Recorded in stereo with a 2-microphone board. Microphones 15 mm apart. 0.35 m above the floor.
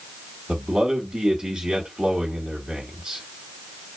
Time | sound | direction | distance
0.5 | a man speaking | 55° right (ahead or behind) | 2.5 m